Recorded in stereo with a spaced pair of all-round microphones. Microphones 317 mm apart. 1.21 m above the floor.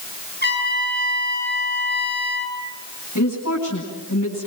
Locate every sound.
0.4 s a trumpet: 30° left (ahead or behind), 9.5 m
3.1 s a woman speaking: 60° left (ahead or behind), 10 m